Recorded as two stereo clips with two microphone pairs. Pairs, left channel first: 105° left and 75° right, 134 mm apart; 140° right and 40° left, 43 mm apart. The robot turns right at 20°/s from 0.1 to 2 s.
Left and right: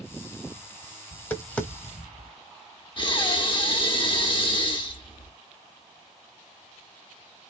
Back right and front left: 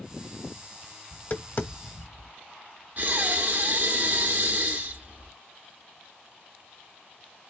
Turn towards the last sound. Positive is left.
turn(degrees=70)